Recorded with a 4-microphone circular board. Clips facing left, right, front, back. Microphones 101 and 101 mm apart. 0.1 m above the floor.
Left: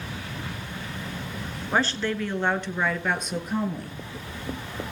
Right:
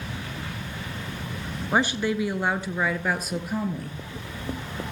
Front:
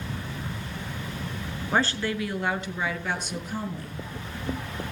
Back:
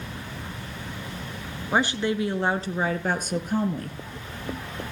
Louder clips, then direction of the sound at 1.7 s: Right 2 dB, back 2 dB; 130° right.